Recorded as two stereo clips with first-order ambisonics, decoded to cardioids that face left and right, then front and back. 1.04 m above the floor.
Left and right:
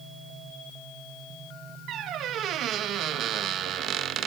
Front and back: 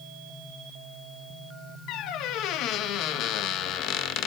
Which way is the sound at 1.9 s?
40° right.